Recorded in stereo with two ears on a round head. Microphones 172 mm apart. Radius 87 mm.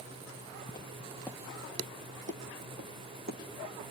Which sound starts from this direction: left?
Footsteps, at 0.7 s.